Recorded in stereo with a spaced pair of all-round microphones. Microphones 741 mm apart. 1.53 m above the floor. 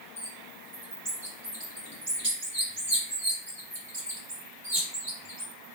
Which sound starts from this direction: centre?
A bird, at 0.2 s.